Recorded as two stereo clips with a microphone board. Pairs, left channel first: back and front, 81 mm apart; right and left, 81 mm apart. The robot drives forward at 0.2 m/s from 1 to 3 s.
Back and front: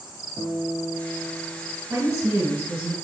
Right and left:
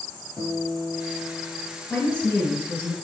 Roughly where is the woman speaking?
Ahead right.